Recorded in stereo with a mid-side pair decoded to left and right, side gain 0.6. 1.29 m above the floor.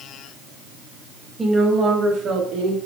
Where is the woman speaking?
10° right, 1.6 m; by 2.8 s 70° right, 2.5 m.